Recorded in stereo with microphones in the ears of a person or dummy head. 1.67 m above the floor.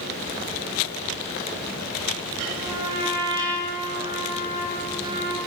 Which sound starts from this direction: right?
A trumpet, at 2.5 s.